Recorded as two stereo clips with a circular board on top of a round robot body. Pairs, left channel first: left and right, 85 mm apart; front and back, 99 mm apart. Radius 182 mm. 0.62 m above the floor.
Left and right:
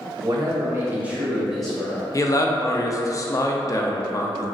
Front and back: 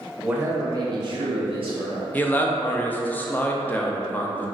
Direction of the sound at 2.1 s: 65° left.